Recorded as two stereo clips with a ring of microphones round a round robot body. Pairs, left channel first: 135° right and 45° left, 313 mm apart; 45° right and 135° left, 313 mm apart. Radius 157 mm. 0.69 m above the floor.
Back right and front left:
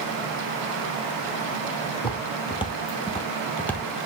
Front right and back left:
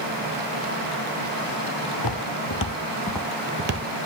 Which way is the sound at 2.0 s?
60° right.